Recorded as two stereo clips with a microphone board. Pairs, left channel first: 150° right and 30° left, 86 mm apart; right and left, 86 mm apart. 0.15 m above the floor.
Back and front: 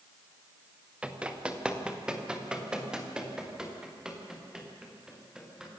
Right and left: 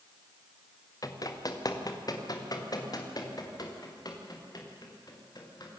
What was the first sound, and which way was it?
Running footsteps, 45° right.